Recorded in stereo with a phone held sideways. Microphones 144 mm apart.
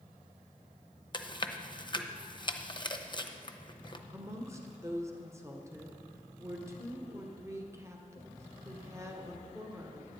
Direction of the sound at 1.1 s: 35° left (ahead or behind).